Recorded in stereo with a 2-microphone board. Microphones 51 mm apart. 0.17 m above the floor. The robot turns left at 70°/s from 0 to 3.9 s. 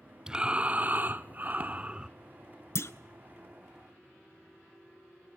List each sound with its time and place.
0.3 s breathing: 25° right, 0.6 m; by 2.1 s 155° right, 0.6 m
2.8 s a clunk: 65° left (ahead or behind), 0.6 m